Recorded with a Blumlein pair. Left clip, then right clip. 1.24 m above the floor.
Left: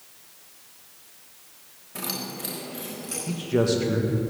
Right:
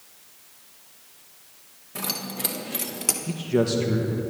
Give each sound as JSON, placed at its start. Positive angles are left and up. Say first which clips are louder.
{"t": 1.9, "sound": "keys jangling", "louder": "right 2 dB", "azimuth_deg": -5, "distance_m": 1.7}
{"t": 3.3, "sound": "a man speaking", "louder": "left 1 dB", "azimuth_deg": 0, "distance_m": 1.7}